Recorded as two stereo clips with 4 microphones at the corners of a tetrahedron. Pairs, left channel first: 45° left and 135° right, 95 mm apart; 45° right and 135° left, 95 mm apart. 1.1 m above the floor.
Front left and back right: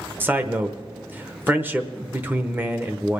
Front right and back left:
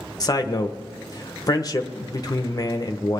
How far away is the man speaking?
About 0.9 m.